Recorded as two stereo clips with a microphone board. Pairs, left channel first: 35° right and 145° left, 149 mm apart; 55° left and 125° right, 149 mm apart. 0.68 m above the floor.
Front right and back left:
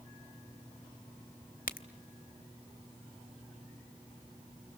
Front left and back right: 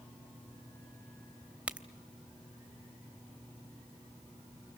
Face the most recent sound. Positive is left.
turn(degrees=-45)